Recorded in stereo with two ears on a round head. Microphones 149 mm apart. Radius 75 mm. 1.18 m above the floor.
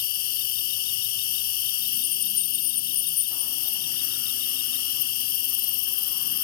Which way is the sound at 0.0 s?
55° left (ahead or behind).